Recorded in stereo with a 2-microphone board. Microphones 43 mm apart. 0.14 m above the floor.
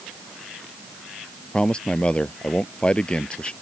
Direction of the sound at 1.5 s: 25° left (ahead or behind).